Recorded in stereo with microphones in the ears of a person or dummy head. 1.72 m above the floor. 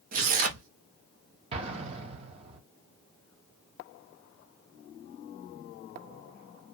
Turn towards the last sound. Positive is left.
turn(degrees=-30)  # may be behind; listen again after turning